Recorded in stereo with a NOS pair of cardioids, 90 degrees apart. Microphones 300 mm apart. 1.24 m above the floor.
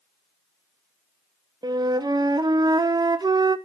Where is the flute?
15° right, 0.6 m.